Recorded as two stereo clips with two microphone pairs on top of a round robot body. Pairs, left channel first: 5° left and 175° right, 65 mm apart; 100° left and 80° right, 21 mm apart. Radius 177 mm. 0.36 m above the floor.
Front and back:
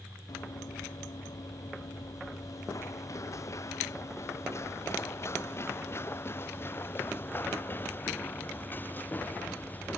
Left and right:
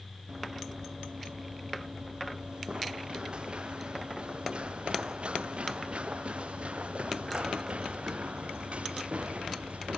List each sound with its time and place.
0.3 s running footsteps: 20° right; by 10.0 s 60° right